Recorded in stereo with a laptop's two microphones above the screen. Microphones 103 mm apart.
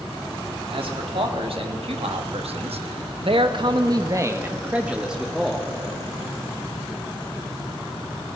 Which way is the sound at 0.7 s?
60° right (ahead or behind).